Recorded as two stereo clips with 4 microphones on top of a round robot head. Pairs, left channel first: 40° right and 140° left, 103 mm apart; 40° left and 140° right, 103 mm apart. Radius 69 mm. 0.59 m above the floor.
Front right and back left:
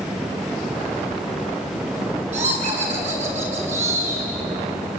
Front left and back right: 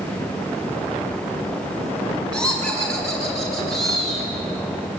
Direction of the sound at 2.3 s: 120° left.